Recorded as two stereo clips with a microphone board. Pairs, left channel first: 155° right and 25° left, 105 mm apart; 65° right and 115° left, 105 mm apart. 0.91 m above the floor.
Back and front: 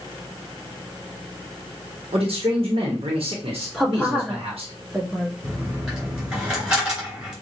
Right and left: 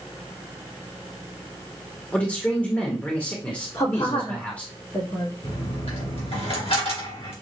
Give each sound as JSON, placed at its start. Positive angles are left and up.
{"t": 2.1, "sound": "a man speaking", "azimuth_deg": 10, "distance_m": 1.1}
{"t": 3.7, "sound": "a woman speaking", "azimuth_deg": -65, "distance_m": 1.8}
{"t": 5.4, "sound": "a dropped coin", "azimuth_deg": -60, "distance_m": 3.0}